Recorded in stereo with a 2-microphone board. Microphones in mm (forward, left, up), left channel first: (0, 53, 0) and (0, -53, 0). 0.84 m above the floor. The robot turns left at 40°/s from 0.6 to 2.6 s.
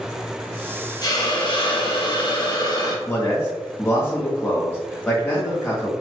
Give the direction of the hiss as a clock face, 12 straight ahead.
8 o'clock.